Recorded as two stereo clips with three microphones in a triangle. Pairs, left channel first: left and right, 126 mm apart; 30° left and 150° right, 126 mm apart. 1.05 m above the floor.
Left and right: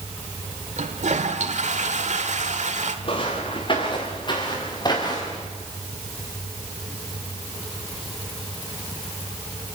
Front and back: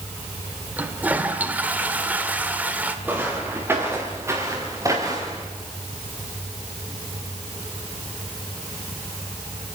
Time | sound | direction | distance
0.8 | a toilet flushing | 70° right | 1.7 m
3.0 | footsteps | 135° left | 5 m